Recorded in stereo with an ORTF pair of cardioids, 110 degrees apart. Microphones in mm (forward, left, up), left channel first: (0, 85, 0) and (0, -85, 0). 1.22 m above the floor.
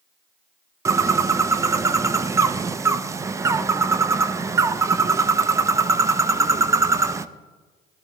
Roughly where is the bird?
Ahead.